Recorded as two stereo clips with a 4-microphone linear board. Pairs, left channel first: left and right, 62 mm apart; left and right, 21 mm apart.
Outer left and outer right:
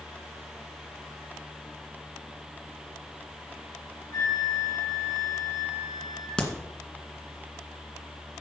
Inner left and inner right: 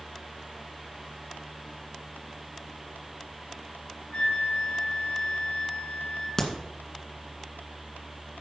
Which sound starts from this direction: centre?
A crack, at 6.4 s.